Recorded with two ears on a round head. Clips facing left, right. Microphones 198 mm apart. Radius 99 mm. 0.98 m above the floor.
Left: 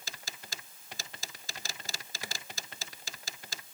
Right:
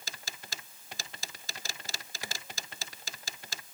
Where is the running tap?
No running tap in this recording.